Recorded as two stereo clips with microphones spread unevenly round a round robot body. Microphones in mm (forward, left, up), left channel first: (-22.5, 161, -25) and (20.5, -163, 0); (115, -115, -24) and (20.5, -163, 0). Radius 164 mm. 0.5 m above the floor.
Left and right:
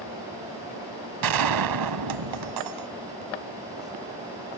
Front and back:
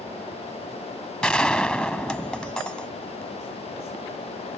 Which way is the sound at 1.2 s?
55° right.